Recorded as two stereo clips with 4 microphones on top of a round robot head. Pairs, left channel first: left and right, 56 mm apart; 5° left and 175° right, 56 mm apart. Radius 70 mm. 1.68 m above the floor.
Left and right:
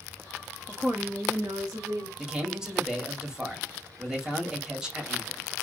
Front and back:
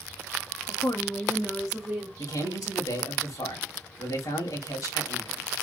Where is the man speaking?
15° right, 1.7 m.